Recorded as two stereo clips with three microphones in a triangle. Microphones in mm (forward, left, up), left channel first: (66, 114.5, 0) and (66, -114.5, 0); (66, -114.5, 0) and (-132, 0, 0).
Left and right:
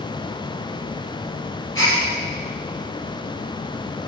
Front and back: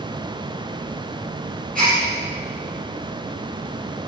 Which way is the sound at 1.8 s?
100° left.